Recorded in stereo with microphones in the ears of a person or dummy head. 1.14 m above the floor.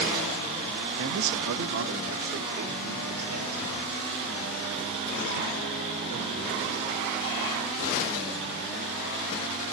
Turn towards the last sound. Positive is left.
turn(degrees=-85)